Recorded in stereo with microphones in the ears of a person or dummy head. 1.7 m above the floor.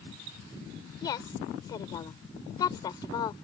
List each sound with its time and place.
1.0 s a woman speaking: 25° left (ahead or behind)